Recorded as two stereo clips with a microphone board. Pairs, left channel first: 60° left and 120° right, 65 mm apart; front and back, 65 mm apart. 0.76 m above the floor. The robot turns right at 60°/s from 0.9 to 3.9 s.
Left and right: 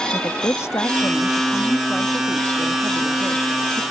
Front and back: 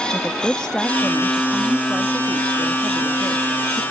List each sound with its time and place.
0.1 s a woman speaking: 75° left; by 3.8 s 110° right